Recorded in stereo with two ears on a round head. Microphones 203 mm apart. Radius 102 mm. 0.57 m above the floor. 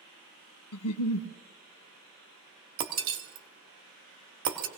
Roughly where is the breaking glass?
Right.